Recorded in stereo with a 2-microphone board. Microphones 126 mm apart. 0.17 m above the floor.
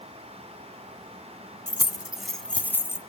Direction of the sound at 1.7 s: 20° right (ahead or behind).